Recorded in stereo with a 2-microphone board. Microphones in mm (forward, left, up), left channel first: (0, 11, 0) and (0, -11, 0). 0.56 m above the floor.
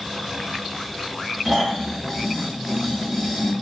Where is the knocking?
I don't hear knocking.